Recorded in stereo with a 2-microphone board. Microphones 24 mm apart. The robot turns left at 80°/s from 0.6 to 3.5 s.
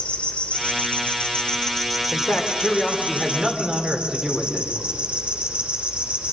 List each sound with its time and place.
0.0 s an insect: 125° left, 3 m; by 6.3 s 105° right, 3 m
2.1 s a man speaking: 80° left, 3 m; by 4.7 s 35° right, 3 m